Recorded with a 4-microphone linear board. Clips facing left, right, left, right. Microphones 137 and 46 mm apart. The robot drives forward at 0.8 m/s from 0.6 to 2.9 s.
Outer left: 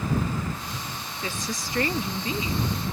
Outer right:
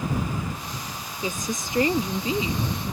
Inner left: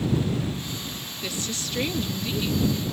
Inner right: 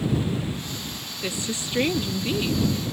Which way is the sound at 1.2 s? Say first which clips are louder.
Outer right 4 dB, inner right 3 dB; 20° right (ahead or behind).